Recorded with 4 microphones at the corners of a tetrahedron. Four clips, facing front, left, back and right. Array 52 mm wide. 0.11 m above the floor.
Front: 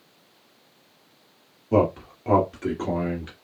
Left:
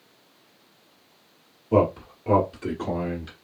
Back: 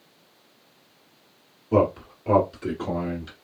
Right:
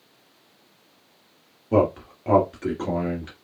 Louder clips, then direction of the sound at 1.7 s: Even, even; 75° right.